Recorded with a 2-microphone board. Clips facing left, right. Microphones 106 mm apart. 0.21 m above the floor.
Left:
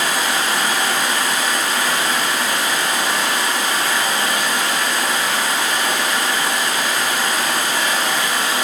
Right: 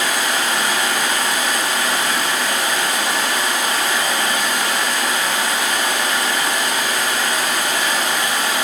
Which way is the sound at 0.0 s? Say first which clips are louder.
Even; 30° left (ahead or behind).